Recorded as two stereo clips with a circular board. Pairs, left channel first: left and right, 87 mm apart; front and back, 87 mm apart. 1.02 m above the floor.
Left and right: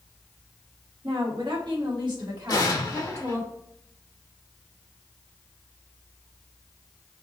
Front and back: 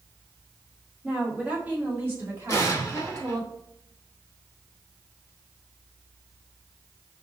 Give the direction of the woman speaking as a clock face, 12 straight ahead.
3 o'clock.